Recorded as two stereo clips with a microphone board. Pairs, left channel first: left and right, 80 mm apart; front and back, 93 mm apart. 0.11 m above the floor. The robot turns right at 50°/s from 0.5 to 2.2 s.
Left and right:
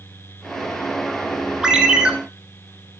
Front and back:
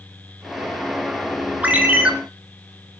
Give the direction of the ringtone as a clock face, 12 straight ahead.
5 o'clock.